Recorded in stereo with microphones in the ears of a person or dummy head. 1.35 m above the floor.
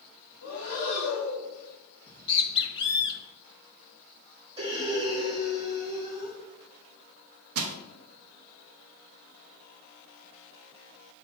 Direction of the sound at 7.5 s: 60° right (ahead or behind).